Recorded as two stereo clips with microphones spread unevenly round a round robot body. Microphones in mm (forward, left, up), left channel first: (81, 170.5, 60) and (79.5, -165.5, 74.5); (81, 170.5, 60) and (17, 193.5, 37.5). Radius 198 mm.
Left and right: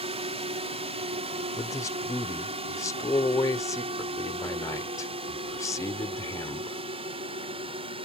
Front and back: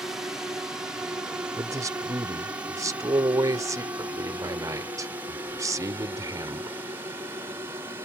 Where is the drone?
155° right; by 8.1 s 165° right.